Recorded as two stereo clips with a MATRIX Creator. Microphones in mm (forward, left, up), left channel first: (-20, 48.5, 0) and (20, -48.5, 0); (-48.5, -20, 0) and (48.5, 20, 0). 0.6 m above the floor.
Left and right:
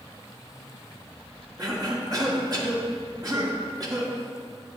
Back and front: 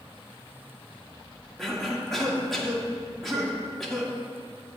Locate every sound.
1.6 s a cough: 70° right, 1.5 m